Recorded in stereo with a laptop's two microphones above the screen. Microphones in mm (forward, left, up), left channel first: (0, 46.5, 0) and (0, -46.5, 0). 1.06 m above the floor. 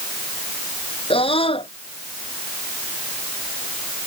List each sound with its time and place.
1.1 s a scream: 80° left